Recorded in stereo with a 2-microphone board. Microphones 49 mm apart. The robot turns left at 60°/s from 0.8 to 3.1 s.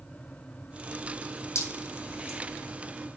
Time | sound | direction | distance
1.6 | dripping | 75° left (ahead or behind) | 4.5 m